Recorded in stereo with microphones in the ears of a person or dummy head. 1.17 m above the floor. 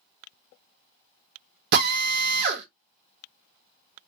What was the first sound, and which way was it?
A drill, 60° right (ahead or behind).